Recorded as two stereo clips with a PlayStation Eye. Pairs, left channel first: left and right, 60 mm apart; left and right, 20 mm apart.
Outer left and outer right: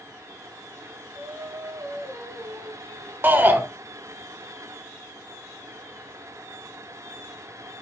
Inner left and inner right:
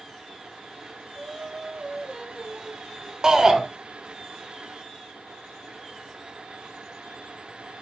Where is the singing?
65° right (ahead or behind), 2 m.